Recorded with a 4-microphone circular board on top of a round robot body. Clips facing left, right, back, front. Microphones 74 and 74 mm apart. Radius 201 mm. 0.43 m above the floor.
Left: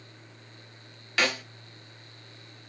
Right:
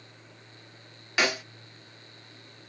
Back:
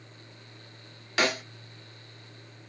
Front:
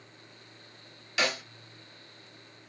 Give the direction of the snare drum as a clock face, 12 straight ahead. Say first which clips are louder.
Right 1 dB, back 3 dB; 5 o'clock.